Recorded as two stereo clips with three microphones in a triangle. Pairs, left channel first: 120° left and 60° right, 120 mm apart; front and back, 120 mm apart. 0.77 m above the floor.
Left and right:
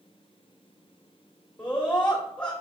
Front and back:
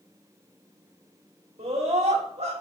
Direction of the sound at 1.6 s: 175° right.